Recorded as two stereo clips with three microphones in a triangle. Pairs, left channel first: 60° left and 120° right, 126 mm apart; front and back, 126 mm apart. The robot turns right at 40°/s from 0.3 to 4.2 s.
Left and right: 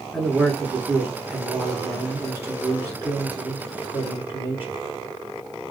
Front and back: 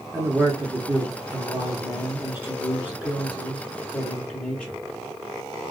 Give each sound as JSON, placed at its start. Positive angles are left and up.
{"t": 0.1, "sound": "a man speaking", "azimuth_deg": 140, "distance_m": 1.2}